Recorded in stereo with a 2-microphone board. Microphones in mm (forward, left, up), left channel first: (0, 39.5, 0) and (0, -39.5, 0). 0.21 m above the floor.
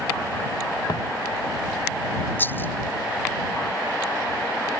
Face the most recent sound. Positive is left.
turn(degrees=25)  # may be behind; listen again after turning